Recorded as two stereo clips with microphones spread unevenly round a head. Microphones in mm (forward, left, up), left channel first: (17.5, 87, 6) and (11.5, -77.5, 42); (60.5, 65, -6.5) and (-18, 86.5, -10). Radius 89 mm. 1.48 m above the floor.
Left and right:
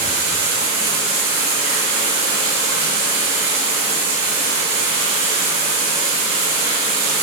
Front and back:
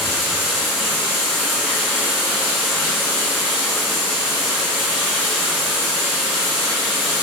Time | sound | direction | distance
0.0 | running water | 110° right | 5.5 m